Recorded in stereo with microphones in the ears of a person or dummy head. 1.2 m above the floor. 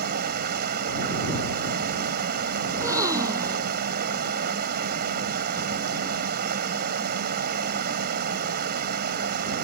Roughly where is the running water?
Right.